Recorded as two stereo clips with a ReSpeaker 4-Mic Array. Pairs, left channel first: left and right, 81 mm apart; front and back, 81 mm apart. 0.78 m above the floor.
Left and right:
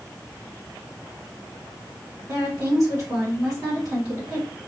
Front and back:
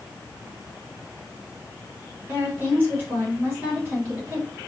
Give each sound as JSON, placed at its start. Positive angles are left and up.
{"t": 2.3, "sound": "a woman speaking", "azimuth_deg": -120, "distance_m": 1.8}